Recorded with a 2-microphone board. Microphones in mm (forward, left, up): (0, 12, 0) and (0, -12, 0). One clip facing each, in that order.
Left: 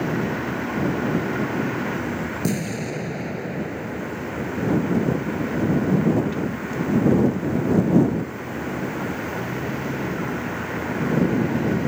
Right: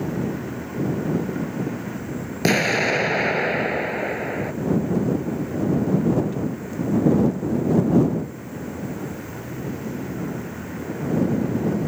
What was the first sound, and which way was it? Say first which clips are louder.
A vehicle: left 2 dB; 30° left (ahead or behind).